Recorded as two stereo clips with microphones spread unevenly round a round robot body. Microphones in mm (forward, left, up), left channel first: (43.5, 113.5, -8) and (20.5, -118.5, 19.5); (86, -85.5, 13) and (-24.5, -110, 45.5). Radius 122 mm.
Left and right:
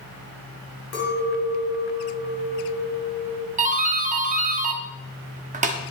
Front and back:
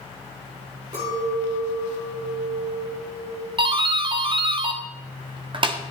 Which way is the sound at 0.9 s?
125° left.